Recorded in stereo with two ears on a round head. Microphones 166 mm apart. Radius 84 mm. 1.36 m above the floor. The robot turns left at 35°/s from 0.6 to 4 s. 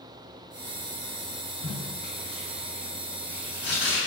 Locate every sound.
1.6 s tape being pulled: 45° left (ahead or behind), 1.9 m; by 4.0 s 30° left (ahead or behind), 1.9 m